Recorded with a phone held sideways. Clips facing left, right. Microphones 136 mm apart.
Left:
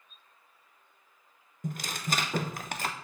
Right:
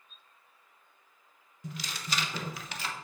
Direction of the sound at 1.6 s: 50° left (ahead or behind).